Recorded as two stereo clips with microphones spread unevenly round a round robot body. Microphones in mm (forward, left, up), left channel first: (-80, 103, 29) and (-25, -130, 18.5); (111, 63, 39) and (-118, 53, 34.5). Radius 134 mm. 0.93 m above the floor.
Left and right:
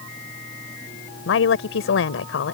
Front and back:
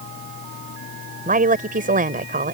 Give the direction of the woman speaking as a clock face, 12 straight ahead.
8 o'clock.